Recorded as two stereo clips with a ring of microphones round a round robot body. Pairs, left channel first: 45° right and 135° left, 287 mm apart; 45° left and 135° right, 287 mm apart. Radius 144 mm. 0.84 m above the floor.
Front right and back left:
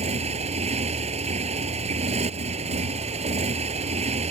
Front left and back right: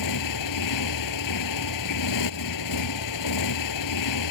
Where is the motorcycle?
65° left.